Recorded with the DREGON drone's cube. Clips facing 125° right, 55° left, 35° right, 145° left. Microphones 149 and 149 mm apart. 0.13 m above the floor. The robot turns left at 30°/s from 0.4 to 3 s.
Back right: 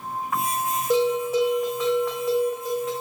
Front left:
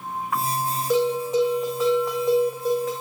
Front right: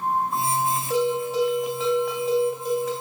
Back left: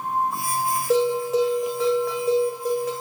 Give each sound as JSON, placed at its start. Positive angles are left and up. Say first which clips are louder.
{"t": 0.9, "sound": "a bell", "louder": "even, back left 4 dB", "azimuth_deg": 165, "distance_m": 3.0}